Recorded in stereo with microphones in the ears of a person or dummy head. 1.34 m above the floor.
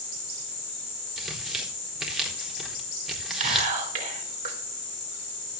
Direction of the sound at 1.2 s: Centre (ahead or behind).